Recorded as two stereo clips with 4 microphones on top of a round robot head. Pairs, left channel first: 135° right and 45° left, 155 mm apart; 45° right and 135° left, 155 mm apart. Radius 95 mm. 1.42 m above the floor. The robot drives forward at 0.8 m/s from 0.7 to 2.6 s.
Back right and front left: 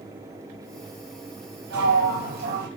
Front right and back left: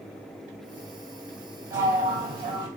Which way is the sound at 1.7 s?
60° left.